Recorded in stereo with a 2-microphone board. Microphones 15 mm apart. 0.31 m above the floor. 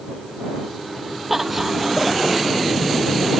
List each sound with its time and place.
1.3 s laughter: 10° right (ahead or behind)